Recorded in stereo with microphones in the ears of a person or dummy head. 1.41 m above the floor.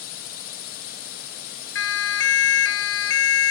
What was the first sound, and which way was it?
A drone, 50° left (ahead or behind).